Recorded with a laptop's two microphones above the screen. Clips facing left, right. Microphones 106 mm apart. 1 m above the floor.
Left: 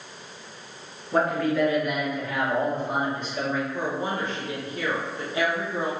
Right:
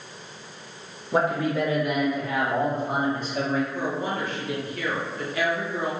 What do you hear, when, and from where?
1.1 s a man speaking: 10° right (ahead or behind), 0.5 m; by 3.6 s 45° right (ahead or behind), 1.7 m
3.7 s a woman speaking: 25° left (ahead or behind), 0.9 m